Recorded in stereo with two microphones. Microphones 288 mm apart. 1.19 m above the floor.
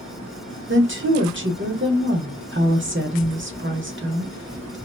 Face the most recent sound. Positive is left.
turn(degrees=-45)  # may be behind; listen again after turning